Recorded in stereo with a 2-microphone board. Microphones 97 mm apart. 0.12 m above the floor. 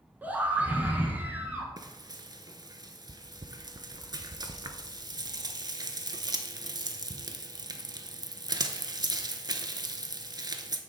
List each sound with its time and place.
0.2 s a scream: 20° right (ahead or behind), 1.1 m; by 1.7 s 15° right (ahead or behind), 1.4 m
1.8 s frying: 45° right (ahead or behind), 0.6 m